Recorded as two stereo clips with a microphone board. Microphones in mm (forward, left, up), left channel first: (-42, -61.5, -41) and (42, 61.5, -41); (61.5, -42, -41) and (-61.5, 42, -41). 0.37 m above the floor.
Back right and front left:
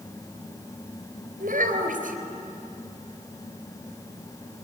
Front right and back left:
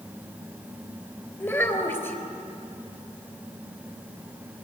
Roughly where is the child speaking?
Ahead left.